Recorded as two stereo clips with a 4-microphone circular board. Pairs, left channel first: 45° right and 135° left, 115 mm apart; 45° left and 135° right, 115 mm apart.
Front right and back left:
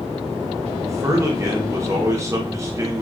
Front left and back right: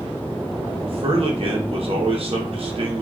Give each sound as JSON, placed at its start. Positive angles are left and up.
{"t": 0.8, "sound": "a man speaking", "azimuth_deg": -165, "distance_m": 0.8}